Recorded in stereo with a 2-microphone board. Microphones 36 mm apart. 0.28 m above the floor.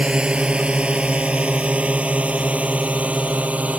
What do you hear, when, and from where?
0.0 s a drone: 30° right (ahead or behind); by 3.8 s 45° right (ahead or behind)